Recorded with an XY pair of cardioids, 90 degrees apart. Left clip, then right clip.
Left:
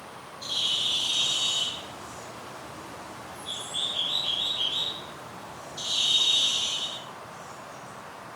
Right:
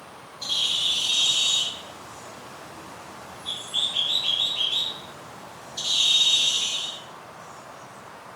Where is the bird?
70° right, 2 m.